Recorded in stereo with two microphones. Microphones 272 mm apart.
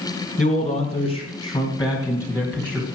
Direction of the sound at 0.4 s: 25° left (ahead or behind).